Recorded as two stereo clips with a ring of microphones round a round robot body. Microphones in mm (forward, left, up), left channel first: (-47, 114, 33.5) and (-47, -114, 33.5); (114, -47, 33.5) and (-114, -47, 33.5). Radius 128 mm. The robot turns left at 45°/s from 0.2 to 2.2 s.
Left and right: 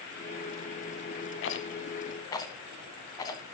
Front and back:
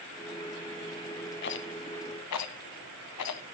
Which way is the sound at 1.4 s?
50° left.